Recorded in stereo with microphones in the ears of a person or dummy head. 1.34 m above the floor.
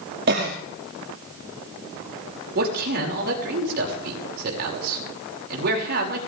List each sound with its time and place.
0.3 s a cough: 55° right (ahead or behind), 2.5 m
2.5 s a man speaking: 60° right (ahead or behind), 6 m